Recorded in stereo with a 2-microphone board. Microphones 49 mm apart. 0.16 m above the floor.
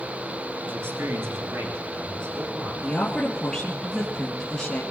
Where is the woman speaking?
15° left (ahead or behind), 3 m.